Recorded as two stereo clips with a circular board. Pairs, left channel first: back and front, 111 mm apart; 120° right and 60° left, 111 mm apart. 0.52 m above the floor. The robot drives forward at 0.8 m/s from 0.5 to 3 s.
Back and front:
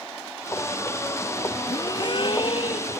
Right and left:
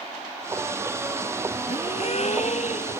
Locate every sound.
1.7 s a gasp: 130° right; by 3.0 s 145° right